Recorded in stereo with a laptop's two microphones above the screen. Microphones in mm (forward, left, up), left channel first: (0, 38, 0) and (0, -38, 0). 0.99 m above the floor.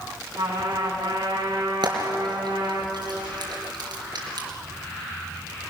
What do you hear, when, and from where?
0.4 s a trumpet: 85° right, 4.5 m
1.8 s frying: 75° right (ahead or behind), 4 m